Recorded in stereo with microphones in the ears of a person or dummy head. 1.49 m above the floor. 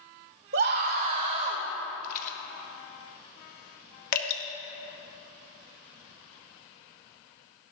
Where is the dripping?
40° left (ahead or behind), 1.8 m.